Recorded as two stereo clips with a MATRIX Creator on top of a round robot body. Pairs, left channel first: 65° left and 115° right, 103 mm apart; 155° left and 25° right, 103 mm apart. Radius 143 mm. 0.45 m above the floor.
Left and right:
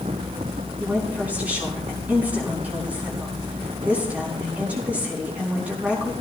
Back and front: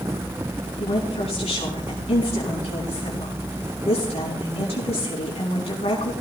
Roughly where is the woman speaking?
Behind.